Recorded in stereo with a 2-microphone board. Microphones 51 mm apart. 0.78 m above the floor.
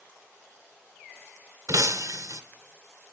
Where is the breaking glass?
80° right, 1.1 m.